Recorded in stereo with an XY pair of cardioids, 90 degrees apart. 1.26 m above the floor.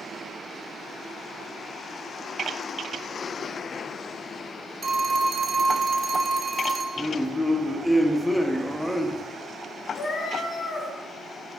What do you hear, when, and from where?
4.8 s a phone ringing: 40° right, 0.7 m
7.0 s a man speaking: 5° left, 0.7 m
9.9 s a cat meowing: 50° left, 1.7 m